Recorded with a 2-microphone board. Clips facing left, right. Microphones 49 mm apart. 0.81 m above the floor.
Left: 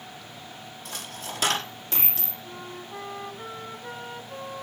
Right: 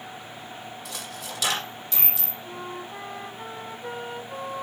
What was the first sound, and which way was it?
A dropped coin, 35° left (ahead or behind).